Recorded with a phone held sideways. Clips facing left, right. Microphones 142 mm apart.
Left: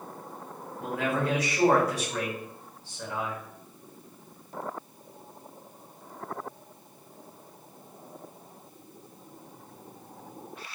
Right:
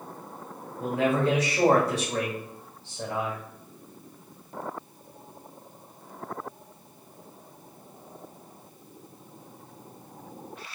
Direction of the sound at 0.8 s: 30° right (ahead or behind).